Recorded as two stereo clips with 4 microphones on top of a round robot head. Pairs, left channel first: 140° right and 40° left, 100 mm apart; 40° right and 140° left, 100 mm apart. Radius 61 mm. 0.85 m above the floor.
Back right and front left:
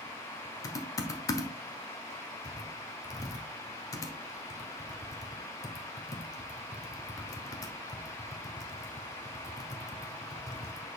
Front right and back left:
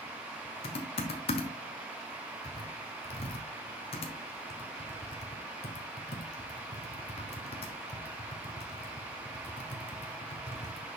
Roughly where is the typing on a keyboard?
Right.